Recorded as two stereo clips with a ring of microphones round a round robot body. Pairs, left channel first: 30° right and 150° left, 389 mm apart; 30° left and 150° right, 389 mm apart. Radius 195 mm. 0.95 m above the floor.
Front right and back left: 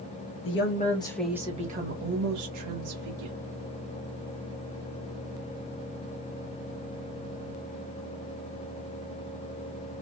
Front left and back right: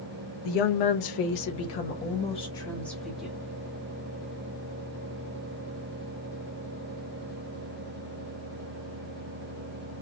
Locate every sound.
0.5 s a woman speaking: 25° left, 1.2 m; by 3.4 s 125° left, 1.9 m